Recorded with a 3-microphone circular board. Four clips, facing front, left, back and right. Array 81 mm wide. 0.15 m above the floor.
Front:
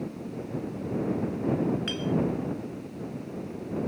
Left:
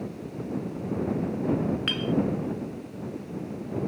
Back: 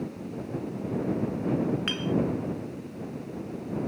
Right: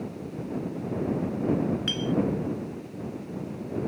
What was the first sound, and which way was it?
A clink, 130° left.